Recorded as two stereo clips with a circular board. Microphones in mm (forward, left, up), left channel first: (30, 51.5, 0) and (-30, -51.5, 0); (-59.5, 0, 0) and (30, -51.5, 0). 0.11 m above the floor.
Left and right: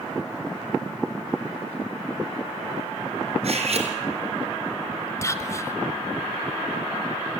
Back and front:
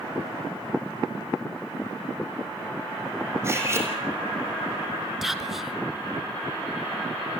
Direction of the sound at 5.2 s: 55° left.